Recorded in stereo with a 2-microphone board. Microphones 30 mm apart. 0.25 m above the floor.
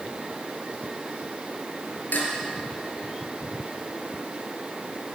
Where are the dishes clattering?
75° left (ahead or behind), 3.5 m.